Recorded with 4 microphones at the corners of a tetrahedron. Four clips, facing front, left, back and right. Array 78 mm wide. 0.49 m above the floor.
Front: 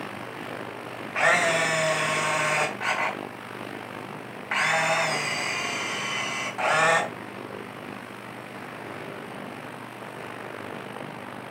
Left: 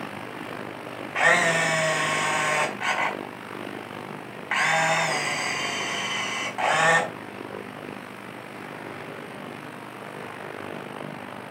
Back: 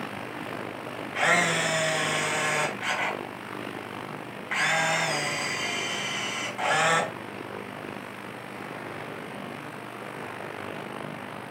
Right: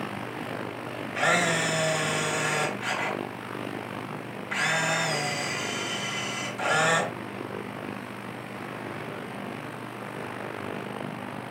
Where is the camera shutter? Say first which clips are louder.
Left 4 dB, front 2 dB; 70° left, 4.5 m.